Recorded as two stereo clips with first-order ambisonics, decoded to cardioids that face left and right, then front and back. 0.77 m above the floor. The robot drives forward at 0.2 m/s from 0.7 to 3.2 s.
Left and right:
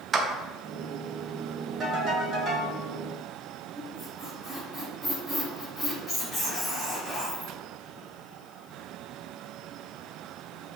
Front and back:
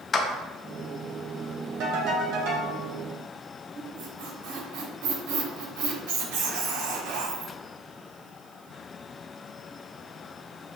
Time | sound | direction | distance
0.1 | a clap | 45° right | 0.5 m
1.8 | a ringtone | 170° right | 2 m
3.8 | a squeak | 165° left | 1.0 m